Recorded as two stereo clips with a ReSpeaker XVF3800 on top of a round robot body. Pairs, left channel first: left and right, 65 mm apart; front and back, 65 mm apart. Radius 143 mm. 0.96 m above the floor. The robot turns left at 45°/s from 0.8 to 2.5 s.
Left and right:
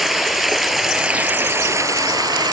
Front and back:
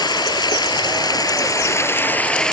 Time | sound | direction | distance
0.0 | running water | 5° right | ?